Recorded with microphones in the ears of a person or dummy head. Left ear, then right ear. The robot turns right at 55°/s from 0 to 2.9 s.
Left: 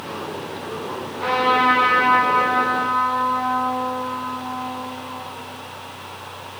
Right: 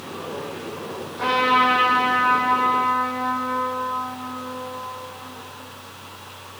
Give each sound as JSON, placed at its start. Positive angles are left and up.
{"t": 1.2, "sound": "a trumpet", "azimuth_deg": -80, "distance_m": 3.0}